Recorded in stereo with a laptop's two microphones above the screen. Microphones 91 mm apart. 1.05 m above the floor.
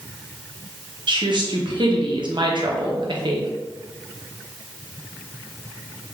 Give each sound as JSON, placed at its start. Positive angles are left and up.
{"t": 1.1, "sound": "a woman speaking", "side_deg": -55, "distance_m": 0.6}